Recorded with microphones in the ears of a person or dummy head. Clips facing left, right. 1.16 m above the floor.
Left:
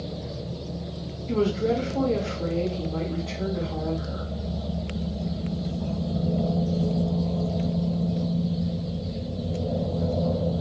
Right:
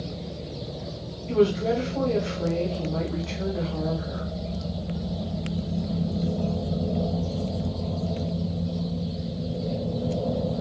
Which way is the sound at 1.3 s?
5° left (ahead or behind).